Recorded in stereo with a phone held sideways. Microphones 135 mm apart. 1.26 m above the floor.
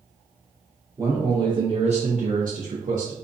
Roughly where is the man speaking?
Right.